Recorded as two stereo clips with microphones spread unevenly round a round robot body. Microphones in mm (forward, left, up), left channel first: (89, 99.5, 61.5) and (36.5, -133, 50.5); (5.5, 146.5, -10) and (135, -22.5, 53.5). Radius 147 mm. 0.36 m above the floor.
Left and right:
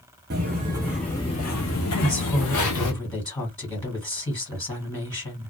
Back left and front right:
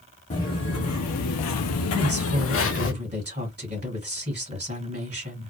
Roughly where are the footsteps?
Behind.